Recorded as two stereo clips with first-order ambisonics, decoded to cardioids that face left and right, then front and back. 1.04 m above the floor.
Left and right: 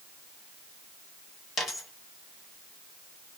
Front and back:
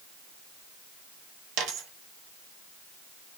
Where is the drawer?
No drawer in this recording.